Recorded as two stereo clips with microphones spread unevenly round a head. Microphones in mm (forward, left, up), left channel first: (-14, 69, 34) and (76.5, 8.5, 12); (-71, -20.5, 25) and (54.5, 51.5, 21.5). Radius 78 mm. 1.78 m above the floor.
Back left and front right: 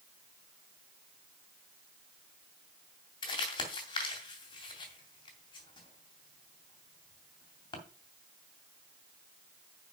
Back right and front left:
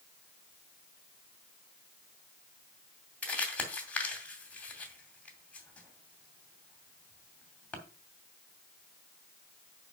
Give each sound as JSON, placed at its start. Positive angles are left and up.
{"t": 3.2, "sound": "crumpling", "azimuth_deg": 130, "distance_m": 2.5}